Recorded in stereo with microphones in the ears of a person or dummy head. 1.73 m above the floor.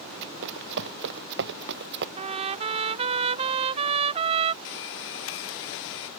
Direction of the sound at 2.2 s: 30° right (ahead or behind).